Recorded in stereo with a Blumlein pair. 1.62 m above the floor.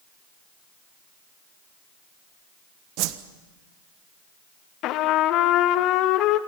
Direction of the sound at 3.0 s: 40° right.